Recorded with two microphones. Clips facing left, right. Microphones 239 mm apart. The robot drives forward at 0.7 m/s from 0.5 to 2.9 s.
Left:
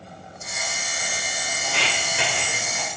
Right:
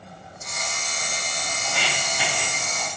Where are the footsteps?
75° left (ahead or behind), 4.5 m; by 2.9 s 70° left (ahead or behind), 3.5 m.